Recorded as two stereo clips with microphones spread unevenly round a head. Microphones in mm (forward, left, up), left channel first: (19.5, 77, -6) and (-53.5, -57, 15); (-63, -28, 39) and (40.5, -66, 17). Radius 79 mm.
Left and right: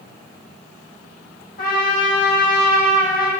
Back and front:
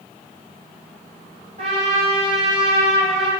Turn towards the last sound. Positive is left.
turn(degrees=20)